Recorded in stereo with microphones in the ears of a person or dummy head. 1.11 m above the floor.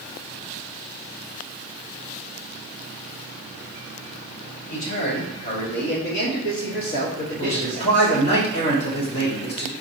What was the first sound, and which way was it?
A man speaking, 75° left (ahead or behind).